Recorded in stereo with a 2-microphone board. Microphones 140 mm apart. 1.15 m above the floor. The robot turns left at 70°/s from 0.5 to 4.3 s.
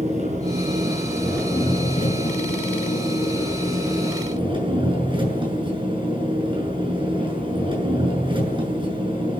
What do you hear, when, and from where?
0.0 s an engine running: 130° right, 7.5 m; by 9.4 s 35° right, 7.5 m